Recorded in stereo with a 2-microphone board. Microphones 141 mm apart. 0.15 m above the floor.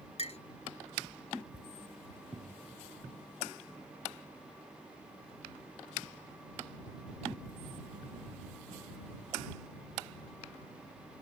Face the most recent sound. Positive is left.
turn(degrees=55)  # may be behind; listen again after turning